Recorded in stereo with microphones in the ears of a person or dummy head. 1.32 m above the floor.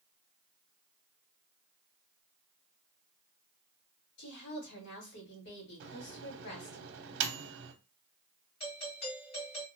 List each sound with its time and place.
4.2 s a woman speaking: 70° left (ahead or behind), 1.9 m
5.8 s a microwave: 65° right (ahead or behind), 0.6 m
8.6 s a doorbell: 50° left (ahead or behind), 2.0 m